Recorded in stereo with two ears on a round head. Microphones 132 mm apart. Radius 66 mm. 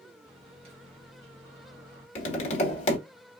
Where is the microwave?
40° right (ahead or behind), 2 m.